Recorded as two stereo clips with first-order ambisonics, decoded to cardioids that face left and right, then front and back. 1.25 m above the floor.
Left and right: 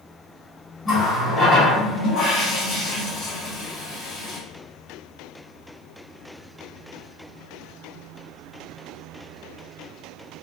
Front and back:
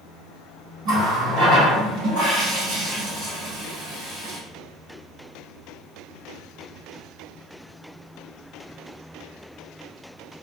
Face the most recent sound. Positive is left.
turn(degrees=150)